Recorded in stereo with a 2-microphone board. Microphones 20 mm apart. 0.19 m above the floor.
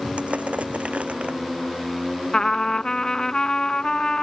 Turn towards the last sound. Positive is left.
turn(degrees=35)  # may be behind; listen again after turning